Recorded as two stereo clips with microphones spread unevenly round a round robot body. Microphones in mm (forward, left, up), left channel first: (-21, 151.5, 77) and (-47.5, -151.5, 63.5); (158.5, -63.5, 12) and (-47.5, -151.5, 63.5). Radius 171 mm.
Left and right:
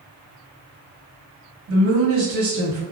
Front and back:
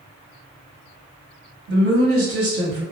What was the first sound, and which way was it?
A woman speaking, 130° right.